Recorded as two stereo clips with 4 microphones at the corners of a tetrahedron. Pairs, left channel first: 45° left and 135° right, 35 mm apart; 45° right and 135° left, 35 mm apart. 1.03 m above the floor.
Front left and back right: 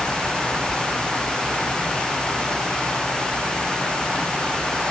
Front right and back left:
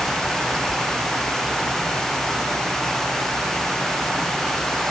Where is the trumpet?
No trumpet in this recording.